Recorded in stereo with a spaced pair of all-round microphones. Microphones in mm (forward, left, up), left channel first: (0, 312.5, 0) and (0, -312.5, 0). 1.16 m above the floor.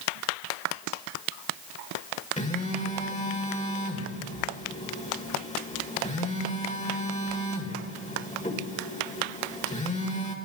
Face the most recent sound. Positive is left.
turn(degrees=10)  # may be behind; listen again after turning